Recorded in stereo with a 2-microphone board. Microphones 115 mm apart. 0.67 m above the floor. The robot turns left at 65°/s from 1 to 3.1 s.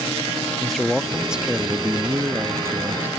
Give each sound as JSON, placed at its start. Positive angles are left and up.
{"t": 0.6, "sound": "a man speaking", "side_deg": 0}